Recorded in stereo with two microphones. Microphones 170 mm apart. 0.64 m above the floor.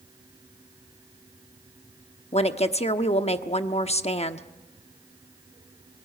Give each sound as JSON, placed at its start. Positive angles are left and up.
{"t": 2.3, "sound": "a woman speaking", "side_deg": 40, "distance_m": 1.0}